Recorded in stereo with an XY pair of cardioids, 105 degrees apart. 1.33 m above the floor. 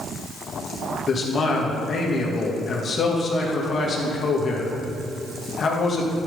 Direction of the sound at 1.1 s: 45° left.